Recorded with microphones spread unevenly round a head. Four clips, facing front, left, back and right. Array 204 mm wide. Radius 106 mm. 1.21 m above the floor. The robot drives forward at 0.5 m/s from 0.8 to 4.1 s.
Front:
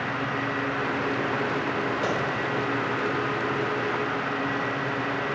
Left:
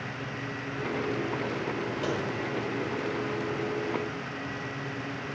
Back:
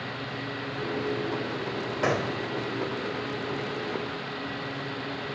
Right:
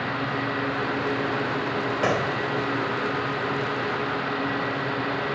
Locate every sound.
2.0 s a gunshot: 110° right, 1.4 m; by 2.4 s 115° right, 1.4 m